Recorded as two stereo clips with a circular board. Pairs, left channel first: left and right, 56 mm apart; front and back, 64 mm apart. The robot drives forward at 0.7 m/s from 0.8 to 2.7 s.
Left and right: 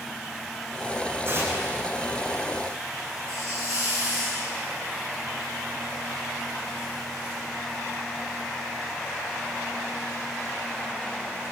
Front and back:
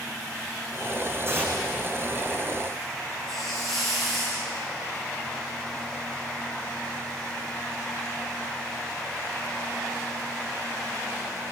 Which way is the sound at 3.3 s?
85° right.